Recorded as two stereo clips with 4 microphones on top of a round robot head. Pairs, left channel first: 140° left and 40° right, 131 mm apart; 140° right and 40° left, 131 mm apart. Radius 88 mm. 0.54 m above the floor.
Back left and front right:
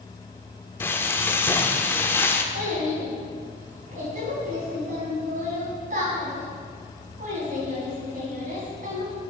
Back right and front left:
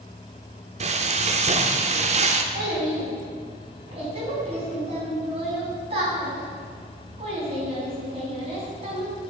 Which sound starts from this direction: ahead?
A child speaking, at 2.5 s.